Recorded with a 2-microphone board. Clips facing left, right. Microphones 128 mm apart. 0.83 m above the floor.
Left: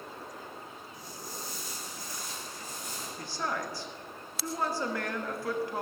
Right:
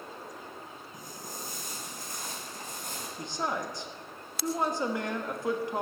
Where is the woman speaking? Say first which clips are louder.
Right 2 dB; 20° right (ahead or behind), 1.3 m.